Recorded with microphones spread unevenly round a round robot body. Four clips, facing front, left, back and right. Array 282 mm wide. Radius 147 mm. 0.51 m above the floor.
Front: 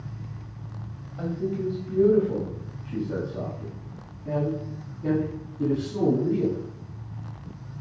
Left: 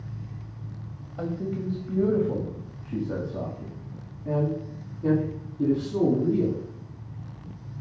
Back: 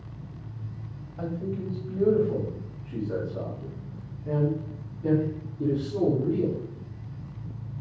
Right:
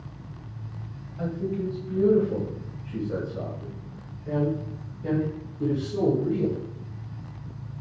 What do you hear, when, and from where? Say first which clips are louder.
1.2 s a man speaking: right 1 dB, front 4 dB; 80° left, 2.5 m; by 6.6 s 60° left, 5.5 m